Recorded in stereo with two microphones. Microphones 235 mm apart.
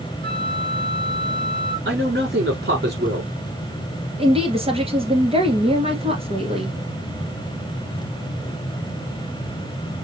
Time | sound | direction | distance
0.2 | a flute | 20° left (ahead or behind) | 1.6 m
1.9 | a man speaking | 55° right (ahead or behind) | 4.5 m
4.2 | a woman speaking | 25° right (ahead or behind) | 1.9 m